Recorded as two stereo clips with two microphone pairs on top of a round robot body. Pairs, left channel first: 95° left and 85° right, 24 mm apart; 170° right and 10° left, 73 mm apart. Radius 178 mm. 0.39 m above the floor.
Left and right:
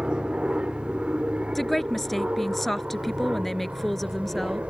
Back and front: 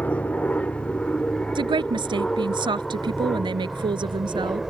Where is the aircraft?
115° right; by 4.7 s 80° right.